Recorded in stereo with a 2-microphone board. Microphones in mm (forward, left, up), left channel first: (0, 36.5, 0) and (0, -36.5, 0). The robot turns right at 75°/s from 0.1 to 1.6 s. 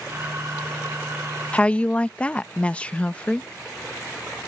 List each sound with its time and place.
1.5 s a woman speaking: 20° left (ahead or behind); by 3.5 s 15° left (ahead or behind)